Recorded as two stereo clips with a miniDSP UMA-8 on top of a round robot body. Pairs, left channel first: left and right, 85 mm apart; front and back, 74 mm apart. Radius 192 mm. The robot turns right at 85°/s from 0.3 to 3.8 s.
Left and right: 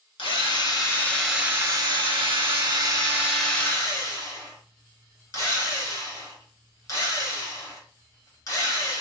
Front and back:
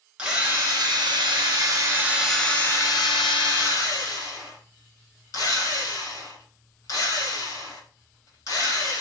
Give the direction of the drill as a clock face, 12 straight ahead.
9 o'clock.